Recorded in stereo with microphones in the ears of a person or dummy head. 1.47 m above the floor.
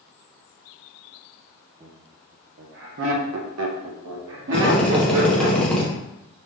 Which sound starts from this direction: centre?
A drill, at 4.5 s.